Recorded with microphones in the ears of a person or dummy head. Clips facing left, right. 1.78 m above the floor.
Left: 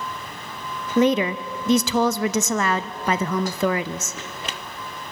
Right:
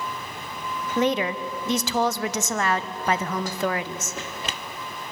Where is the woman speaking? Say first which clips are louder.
Left 5 dB; 65° left (ahead or behind), 0.6 m.